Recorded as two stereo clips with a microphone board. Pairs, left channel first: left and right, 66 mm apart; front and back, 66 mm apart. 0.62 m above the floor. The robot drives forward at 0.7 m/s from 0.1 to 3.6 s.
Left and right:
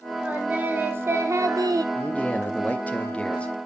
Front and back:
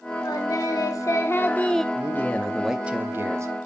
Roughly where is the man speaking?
Ahead left.